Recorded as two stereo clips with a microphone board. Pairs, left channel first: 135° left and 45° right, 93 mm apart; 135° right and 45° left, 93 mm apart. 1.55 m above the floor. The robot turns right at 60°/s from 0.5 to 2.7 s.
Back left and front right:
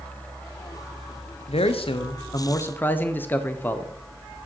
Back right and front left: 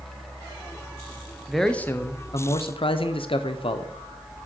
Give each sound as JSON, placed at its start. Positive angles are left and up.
{"t": 1.5, "sound": "a man speaking", "azimuth_deg": 130, "distance_m": 0.5}